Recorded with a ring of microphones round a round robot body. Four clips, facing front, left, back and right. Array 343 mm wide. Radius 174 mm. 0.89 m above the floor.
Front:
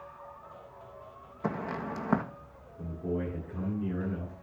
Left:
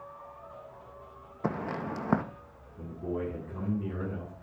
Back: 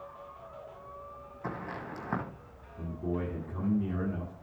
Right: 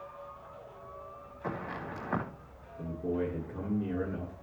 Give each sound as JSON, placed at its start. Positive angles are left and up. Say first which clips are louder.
{"t": 1.4, "sound": "footsteps", "louder": "left 5 dB, front 5 dB", "azimuth_deg": 65, "distance_m": 2.0}
{"t": 2.8, "sound": "a man speaking", "louder": "right 2 dB, front 1 dB", "azimuth_deg": 135, "distance_m": 9.5}